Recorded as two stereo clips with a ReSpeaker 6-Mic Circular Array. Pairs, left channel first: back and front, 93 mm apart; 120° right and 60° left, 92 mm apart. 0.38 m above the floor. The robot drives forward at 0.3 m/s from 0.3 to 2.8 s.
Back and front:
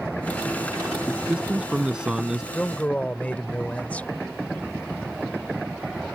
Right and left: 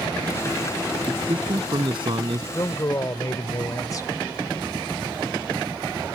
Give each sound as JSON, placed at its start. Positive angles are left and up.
{"t": 1.1, "sound": "a man speaking", "azimuth_deg": 75}
{"t": 2.5, "sound": "a man speaking", "azimuth_deg": -110}